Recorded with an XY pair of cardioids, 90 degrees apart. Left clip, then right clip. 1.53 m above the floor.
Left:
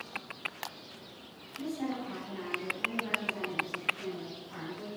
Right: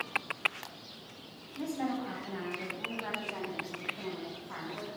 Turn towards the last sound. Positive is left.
turn(degrees=-75)